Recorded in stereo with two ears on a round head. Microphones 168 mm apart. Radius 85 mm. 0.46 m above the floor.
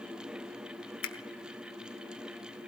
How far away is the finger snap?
About 1.0 m.